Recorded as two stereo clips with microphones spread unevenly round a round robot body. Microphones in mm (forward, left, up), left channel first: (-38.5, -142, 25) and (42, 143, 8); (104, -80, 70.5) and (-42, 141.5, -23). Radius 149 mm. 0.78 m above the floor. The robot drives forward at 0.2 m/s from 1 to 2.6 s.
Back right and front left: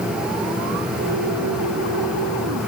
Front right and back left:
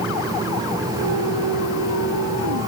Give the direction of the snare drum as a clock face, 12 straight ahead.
No snare drum in this recording.